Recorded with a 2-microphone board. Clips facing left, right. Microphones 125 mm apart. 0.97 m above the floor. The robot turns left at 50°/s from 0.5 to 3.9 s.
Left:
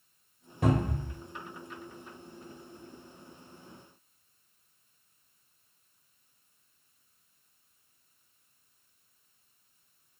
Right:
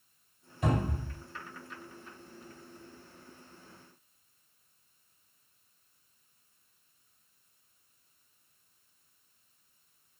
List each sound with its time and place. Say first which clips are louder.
0.6 s a cupboard door: left 3 dB; 60° left (ahead or behind), 1.1 m; by 1.1 s 70° left (ahead or behind), 1.1 m